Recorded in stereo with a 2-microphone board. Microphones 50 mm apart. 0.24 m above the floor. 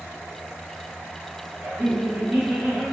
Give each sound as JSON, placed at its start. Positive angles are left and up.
{"t": 1.6, "sound": "laughter", "side_deg": -35, "distance_m": 1.6}